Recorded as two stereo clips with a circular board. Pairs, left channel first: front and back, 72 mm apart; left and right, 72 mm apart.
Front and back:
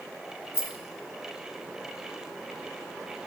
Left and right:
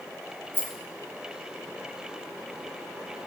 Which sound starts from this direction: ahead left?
A rattle, at 0.5 s.